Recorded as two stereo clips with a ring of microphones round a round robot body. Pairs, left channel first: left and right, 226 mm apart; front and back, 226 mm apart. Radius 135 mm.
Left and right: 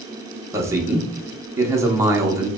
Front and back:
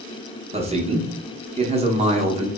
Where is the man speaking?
155° right, 0.7 m.